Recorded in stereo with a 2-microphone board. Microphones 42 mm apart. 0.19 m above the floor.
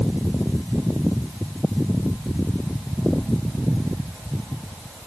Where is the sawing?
No sawing in this recording.